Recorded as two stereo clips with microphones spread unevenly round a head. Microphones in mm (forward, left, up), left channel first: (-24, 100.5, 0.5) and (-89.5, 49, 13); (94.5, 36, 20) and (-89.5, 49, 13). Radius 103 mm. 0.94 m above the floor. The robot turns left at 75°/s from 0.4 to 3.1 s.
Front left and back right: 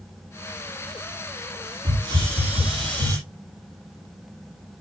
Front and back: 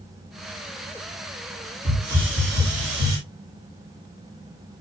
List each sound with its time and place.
1.9 s a hiss: 90° right, 9.5 m; by 3.2 s straight behind, 9.5 m